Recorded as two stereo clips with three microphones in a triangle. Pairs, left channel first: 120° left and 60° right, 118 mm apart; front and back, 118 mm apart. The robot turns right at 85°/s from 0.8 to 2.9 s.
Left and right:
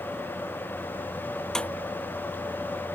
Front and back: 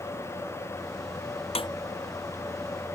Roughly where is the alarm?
I don't hear an alarm.